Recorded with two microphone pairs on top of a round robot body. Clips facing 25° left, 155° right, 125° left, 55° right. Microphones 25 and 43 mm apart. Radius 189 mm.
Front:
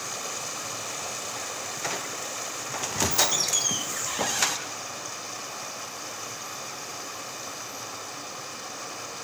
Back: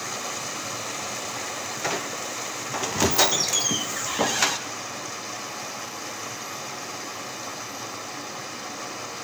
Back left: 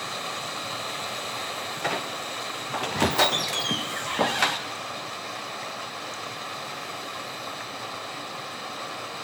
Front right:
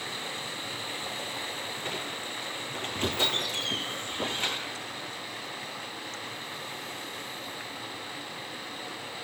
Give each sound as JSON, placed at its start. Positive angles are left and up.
{"t": 0.0, "sound": "running water", "azimuth_deg": 120, "distance_m": 4.5}
{"t": 1.8, "sound": "a squeak", "azimuth_deg": 130, "distance_m": 1.3}